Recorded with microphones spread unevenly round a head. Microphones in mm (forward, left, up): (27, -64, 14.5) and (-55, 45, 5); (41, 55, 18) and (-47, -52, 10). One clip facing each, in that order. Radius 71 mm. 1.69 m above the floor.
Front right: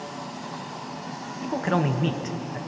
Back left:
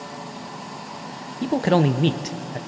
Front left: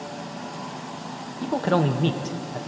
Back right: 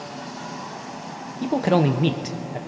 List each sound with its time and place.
1.4 s a man speaking: 160° left, 0.7 m